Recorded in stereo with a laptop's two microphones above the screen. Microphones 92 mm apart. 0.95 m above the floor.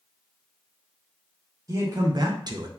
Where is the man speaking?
35° right (ahead or behind), 0.7 m; by 2.7 s 40° right (ahead or behind), 0.5 m.